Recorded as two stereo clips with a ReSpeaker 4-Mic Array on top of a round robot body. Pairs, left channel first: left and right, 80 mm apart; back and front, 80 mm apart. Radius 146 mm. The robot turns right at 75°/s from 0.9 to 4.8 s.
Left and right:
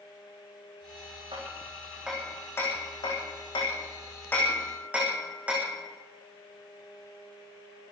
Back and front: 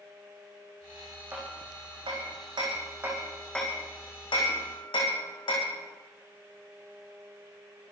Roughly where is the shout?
No shout in this recording.